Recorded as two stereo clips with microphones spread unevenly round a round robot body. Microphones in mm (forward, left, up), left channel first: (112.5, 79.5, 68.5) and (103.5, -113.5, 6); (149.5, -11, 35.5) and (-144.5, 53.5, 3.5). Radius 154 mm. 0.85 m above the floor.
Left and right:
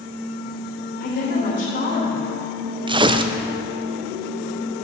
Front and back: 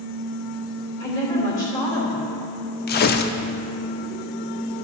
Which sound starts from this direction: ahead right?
Tearing paper, at 2.9 s.